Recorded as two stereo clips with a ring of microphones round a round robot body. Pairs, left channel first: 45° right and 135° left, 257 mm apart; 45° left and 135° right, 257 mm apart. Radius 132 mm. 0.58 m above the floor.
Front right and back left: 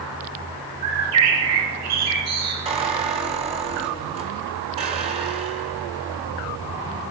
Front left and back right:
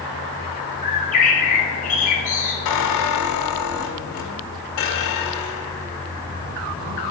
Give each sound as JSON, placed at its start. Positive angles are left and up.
{"t": 0.8, "sound": "a bird", "azimuth_deg": 105, "distance_m": 3.5}
{"t": 2.6, "sound": "a squeak", "azimuth_deg": 65, "distance_m": 1.6}